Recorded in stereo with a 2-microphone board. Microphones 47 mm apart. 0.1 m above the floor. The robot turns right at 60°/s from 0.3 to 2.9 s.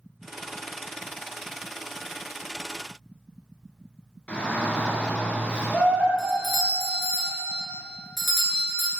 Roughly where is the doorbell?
Centre.